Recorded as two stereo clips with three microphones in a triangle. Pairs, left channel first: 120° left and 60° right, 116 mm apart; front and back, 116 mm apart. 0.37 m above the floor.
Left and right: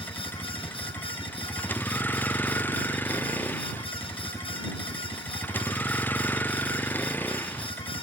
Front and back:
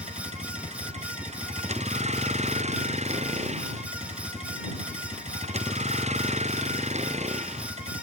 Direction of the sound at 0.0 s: 165° right.